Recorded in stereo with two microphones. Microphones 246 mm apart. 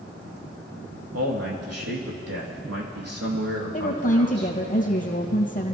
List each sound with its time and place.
1.1 s a man speaking: 75° right (ahead or behind), 4.5 m
3.7 s a woman speaking: 35° left (ahead or behind), 3.5 m